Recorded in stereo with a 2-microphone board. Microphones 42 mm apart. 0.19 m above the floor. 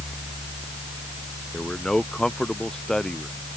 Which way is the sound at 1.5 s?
15° left (ahead or behind).